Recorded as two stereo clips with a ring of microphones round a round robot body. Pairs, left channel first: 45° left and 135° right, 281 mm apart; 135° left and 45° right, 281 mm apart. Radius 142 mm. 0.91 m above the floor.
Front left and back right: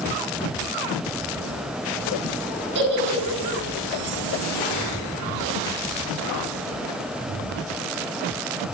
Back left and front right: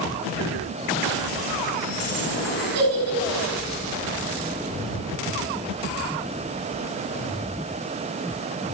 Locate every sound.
2.8 s a giggle: 80° right, 6.5 m